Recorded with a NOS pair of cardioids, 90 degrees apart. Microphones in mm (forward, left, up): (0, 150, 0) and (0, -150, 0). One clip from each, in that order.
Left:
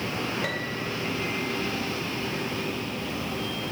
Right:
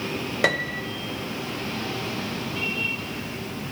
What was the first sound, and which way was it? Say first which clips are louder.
A piano: right 7 dB; 50° right.